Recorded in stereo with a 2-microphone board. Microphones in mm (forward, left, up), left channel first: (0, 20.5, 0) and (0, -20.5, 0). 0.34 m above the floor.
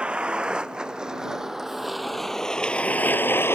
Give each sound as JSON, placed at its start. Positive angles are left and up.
{"t": 0.0, "sound": "a vehicle", "side_deg": -25}